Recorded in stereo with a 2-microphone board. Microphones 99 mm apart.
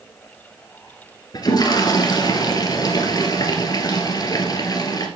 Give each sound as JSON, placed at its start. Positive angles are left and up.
{"t": 1.3, "sound": "a toilet flushing", "side_deg": 40, "distance_m": 1.5}